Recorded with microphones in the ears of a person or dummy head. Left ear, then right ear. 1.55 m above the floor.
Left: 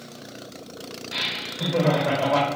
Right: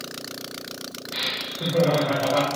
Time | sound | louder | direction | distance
1.1 | laughter | even | 70° left (ahead or behind) | 0.8 m